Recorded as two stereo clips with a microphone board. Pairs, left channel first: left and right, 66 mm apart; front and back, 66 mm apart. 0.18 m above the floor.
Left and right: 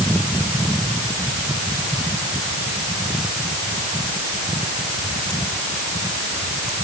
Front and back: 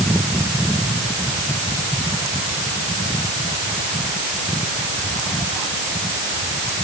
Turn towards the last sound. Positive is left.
No sound to turn to.